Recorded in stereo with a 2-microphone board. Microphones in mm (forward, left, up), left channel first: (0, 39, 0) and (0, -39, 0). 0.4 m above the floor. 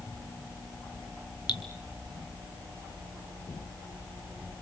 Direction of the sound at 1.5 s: 70° left (ahead or behind).